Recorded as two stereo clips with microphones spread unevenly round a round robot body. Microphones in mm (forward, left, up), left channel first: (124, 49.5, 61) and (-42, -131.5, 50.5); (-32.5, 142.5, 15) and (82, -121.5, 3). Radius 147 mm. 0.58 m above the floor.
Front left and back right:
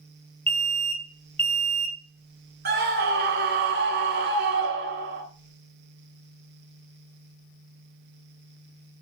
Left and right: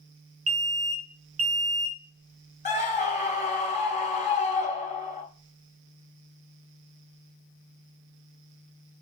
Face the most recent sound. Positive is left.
turn(degrees=180)